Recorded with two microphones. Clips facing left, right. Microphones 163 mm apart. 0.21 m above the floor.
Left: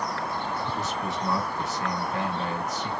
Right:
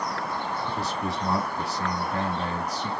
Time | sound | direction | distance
0.8 | a man speaking | 35° right (ahead or behind) | 1.4 m